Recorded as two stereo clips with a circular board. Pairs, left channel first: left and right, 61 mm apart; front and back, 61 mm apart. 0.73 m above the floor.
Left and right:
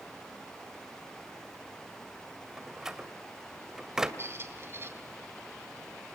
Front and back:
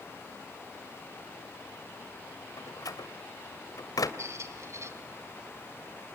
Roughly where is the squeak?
Behind right.